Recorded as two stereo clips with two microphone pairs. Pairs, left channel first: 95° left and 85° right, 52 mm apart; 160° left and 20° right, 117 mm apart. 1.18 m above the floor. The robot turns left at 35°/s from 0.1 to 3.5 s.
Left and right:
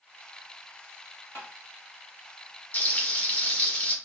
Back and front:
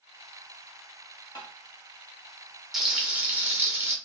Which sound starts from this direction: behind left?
Tapping, at 1.4 s.